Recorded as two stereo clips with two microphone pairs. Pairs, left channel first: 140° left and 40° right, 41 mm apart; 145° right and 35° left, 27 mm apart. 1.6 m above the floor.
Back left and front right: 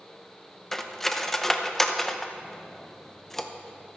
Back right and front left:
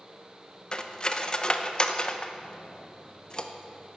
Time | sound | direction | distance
0.7 | cutlery clinking | 150° right | 0.7 m